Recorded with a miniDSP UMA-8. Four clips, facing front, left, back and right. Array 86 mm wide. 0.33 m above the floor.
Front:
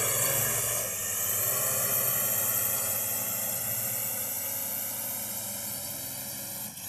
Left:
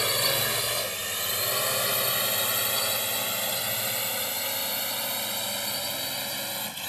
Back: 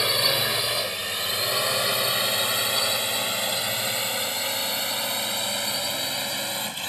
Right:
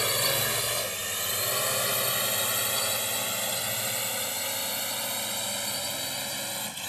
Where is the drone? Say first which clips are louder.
Left 1 dB, back 7 dB; 170° left.